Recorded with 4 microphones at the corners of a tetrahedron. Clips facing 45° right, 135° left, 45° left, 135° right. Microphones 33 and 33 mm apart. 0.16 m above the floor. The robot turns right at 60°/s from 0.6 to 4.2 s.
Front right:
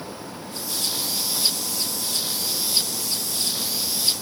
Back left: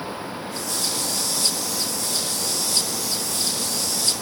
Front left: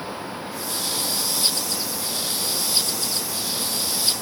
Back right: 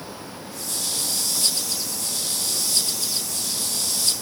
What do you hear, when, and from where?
Only background noise.